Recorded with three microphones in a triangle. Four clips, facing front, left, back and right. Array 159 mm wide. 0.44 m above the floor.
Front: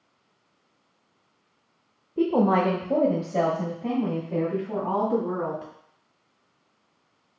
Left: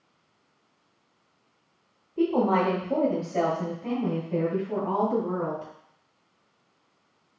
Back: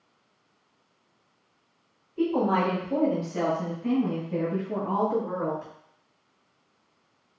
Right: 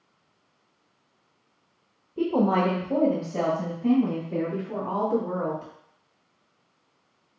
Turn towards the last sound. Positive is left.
turn(degrees=5)